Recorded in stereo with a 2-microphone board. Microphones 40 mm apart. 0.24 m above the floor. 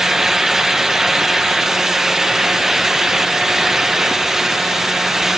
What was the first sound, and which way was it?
Only background noise.